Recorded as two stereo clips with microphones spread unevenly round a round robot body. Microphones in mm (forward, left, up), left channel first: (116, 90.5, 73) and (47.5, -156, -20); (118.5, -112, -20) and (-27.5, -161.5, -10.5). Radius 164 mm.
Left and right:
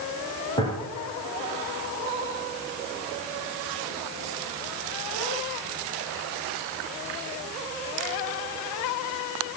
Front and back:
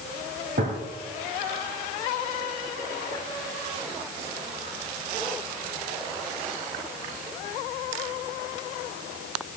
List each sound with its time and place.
0.6 s a gunshot: 165° left, 2.5 m